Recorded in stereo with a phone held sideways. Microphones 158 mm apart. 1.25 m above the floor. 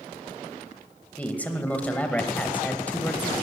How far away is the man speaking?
About 1.0 m.